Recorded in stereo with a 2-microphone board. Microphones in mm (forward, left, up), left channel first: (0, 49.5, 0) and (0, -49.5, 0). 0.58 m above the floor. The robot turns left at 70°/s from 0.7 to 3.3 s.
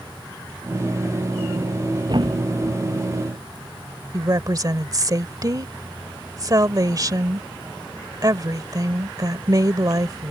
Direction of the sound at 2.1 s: 45° right (ahead or behind).